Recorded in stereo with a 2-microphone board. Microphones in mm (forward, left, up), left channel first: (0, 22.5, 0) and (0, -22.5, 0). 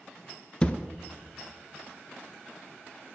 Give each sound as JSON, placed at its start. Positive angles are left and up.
{"t": 0.6, "sound": "a thud", "side_deg": 20, "distance_m": 0.6}